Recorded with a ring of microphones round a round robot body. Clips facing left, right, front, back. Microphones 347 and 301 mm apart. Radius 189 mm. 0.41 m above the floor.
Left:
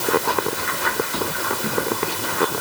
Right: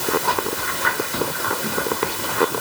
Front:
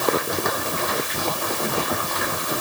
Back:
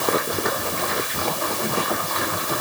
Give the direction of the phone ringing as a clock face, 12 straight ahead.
I don't hear a phone ringing.